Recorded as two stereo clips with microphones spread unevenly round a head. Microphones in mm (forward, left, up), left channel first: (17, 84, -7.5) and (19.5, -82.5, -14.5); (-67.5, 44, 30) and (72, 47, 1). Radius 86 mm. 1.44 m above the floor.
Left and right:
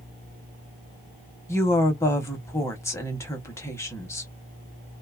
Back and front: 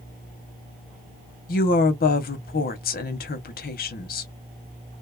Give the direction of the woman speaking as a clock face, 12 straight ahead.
6 o'clock.